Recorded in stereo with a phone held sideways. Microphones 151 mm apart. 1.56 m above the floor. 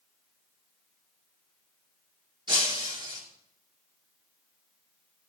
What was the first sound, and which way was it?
Breaking glass, 30° right (ahead or behind).